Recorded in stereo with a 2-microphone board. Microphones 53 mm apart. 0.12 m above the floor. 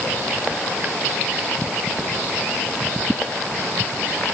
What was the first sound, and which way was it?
Only background noise.